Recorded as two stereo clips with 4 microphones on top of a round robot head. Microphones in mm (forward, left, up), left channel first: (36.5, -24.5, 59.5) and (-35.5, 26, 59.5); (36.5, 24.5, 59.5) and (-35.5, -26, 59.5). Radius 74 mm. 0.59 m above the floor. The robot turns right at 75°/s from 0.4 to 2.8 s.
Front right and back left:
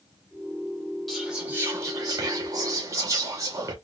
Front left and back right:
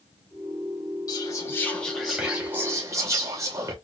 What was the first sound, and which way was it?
Whispering, 50° left.